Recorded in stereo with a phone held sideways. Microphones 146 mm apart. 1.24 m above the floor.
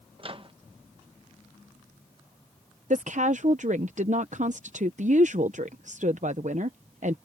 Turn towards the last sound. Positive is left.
turn(degrees=-60)  # may be behind; listen again after turning